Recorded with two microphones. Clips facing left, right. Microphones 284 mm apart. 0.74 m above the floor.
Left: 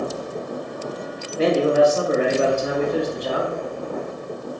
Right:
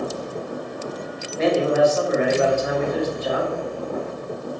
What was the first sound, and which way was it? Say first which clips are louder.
A man speaking: left 1 dB; 40° left (ahead or behind).